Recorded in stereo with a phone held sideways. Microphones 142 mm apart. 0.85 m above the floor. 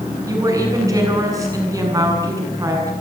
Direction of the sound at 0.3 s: 25° right (ahead or behind).